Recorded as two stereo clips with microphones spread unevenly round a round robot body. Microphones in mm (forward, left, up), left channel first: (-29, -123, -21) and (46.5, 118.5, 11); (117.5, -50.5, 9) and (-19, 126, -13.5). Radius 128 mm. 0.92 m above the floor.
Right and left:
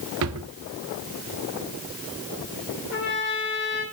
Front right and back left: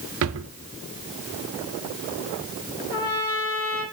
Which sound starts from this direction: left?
A drawer, at 0.2 s.